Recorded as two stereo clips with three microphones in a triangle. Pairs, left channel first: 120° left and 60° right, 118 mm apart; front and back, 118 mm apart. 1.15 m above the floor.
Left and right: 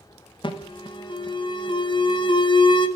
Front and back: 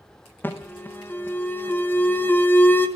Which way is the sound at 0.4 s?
75° left.